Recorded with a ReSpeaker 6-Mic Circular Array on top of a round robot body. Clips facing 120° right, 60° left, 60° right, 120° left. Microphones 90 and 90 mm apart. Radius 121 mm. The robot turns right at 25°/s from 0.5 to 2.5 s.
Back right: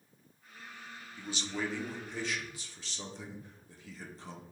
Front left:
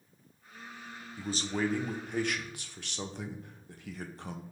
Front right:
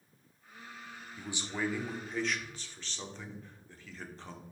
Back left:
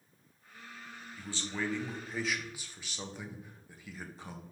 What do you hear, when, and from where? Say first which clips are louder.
1.2 s a man speaking: front left 5 dB, front right 1 dB; 10° left, 0.7 m; by 4.4 s 40° left, 0.7 m